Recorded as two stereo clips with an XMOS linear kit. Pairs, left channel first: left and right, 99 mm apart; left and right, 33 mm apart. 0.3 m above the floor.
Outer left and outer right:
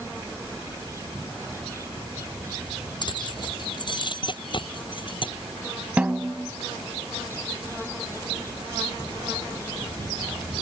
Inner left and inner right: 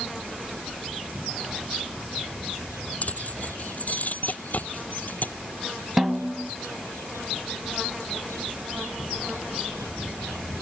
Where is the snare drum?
15° right (ahead or behind).